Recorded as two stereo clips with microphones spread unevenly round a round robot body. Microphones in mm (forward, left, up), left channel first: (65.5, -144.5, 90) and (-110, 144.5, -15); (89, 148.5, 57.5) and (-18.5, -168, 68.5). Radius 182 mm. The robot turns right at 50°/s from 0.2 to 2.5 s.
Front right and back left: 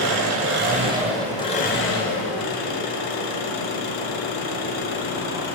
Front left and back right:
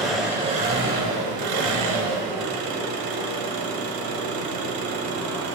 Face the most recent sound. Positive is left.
turn(degrees=-85)